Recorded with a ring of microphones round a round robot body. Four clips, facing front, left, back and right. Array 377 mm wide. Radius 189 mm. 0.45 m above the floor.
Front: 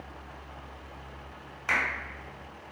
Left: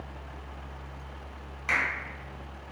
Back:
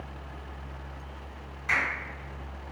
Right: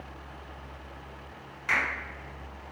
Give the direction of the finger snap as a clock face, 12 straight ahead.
11 o'clock.